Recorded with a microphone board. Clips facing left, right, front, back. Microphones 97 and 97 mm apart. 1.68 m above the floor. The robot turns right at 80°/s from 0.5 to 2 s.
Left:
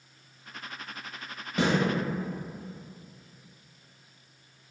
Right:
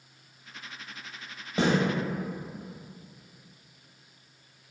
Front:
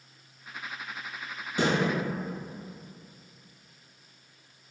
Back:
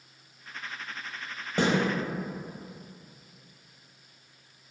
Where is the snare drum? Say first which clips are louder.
Right 1 dB, back 1 dB; 150° right, 1.3 m; by 1.7 s 135° right, 1.3 m.